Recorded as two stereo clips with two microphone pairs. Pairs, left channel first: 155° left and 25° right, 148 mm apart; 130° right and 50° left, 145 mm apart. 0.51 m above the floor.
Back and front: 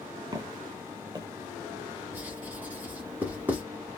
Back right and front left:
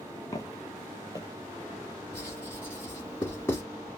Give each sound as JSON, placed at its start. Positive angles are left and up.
{"t": 0.3, "sound": "footsteps", "azimuth_deg": -80, "distance_m": 0.7}
{"t": 2.1, "sound": "writing", "azimuth_deg": -90, "distance_m": 1.3}